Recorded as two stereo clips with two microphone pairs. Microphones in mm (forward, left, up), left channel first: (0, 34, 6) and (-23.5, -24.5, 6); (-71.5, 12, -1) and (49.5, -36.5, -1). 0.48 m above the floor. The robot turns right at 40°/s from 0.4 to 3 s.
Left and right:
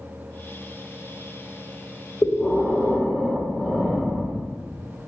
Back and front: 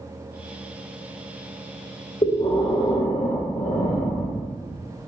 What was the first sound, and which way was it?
Breathing, 125° left.